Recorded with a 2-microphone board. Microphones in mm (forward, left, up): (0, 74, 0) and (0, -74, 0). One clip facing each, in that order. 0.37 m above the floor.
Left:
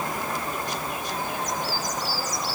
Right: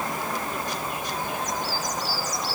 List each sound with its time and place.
Only background noise.